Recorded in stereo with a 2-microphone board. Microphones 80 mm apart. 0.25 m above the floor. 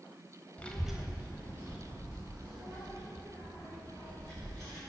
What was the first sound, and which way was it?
A child speaking, 20° left (ahead or behind).